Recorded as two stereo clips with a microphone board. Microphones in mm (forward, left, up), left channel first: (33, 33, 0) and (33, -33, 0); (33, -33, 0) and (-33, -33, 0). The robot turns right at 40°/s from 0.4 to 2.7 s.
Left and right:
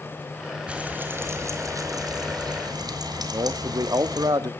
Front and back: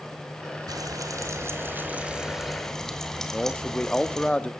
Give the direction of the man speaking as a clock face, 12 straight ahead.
2 o'clock.